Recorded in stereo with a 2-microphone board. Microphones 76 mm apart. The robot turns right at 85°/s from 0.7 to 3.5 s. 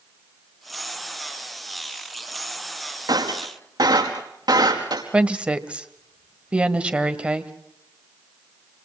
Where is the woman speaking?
15° right (ahead or behind), 1.5 m.